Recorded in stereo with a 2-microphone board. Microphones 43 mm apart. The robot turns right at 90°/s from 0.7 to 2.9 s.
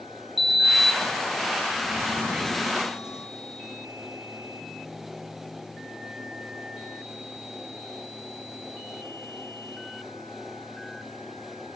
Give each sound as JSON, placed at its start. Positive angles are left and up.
{"t": 0.4, "sound": "a sliding door", "azimuth_deg": 0, "distance_m": 1.1}